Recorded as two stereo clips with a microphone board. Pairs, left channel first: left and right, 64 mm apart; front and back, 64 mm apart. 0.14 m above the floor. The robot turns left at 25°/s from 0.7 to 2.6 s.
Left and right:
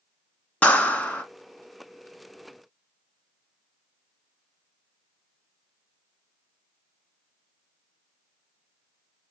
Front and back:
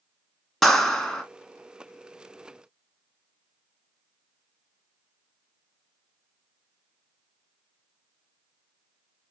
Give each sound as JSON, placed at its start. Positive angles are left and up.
{"t": 0.6, "sound": "a clap", "azimuth_deg": 80, "distance_m": 0.9}